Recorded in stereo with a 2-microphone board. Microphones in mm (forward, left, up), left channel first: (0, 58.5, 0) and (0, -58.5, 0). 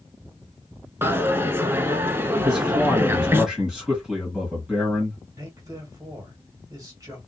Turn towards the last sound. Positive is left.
turn(degrees=-30)  # may be behind; listen again after turning